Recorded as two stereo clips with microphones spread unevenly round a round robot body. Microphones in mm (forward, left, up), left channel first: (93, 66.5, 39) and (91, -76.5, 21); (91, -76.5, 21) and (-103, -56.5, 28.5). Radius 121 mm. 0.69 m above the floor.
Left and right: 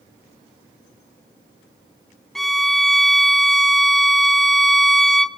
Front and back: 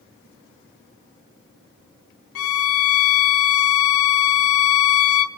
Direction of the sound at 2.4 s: Straight ahead.